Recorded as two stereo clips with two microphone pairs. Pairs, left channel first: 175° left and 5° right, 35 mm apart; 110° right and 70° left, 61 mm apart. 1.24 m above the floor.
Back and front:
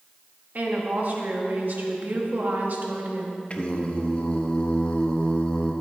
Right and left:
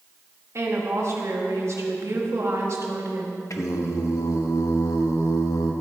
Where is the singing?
130° right, 0.9 m.